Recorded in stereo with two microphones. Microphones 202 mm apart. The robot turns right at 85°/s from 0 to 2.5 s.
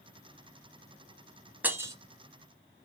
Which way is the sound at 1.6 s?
10° right (ahead or behind).